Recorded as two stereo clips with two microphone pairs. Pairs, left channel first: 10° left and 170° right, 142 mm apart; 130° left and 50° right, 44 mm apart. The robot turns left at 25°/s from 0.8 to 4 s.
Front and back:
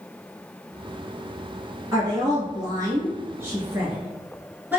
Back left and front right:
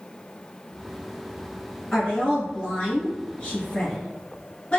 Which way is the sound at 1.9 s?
Straight behind.